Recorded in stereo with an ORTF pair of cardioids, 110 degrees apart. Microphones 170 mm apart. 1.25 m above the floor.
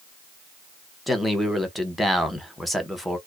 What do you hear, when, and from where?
1.1 s a man speaking: straight ahead, 0.8 m